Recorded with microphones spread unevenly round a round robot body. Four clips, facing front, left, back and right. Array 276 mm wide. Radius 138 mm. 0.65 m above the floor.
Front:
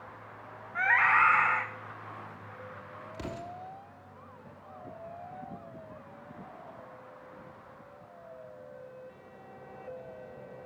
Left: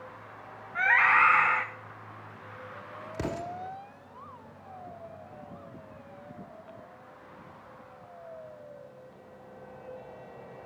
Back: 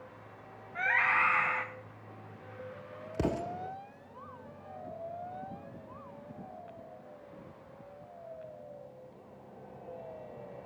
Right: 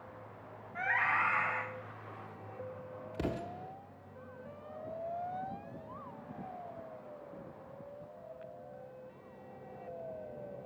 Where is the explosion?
170° left, 0.9 m.